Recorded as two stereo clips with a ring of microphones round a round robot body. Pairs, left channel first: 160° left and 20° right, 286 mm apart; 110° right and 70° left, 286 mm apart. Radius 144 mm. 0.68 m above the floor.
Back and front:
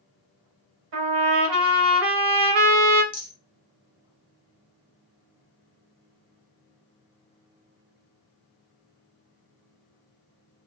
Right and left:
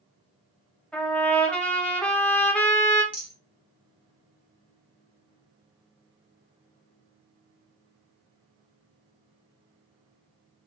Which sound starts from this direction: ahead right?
A trumpet, at 0.9 s.